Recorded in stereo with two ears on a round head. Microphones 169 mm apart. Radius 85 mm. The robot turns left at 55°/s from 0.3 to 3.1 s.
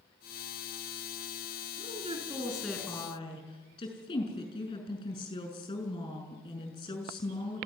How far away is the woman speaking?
About 6 m.